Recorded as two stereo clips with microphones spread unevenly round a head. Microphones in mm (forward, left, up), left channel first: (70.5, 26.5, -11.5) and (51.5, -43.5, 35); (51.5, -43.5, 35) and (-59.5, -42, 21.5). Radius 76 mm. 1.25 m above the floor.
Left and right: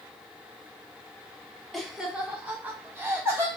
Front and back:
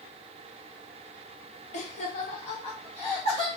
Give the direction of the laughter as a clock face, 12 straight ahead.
12 o'clock.